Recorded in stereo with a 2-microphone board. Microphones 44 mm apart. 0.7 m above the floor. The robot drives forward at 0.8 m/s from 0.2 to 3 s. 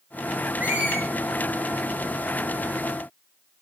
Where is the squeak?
40° right (ahead or behind), 10 m.